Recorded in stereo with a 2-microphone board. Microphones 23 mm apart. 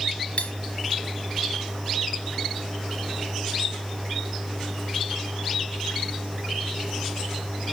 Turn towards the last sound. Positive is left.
turn(degrees=65)  # may be behind; listen again after turning